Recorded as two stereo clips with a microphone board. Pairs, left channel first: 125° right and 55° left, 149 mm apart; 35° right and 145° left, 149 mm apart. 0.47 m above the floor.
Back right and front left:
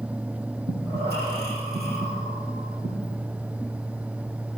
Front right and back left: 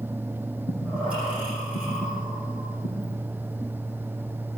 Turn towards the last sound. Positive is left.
turn(degrees=60)